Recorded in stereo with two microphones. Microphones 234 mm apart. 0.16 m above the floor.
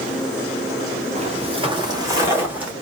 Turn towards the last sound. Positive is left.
turn(degrees=-5)  # may be behind; listen again after turning